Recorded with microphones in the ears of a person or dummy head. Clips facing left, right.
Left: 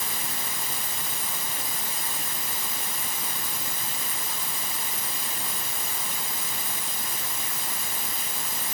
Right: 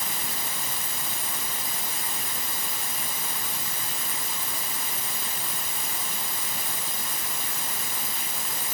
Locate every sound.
Only background noise.